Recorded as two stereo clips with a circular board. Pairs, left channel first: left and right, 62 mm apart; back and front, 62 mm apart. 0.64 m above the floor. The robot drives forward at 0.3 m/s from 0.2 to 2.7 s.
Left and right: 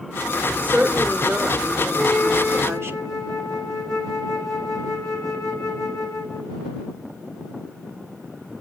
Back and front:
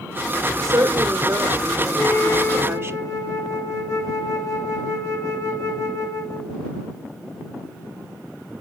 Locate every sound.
0.6 s a woman speaking: 30° right, 1.9 m; by 3.0 s 45° right, 1.4 m
1.9 s a flute: 175° left, 2.5 m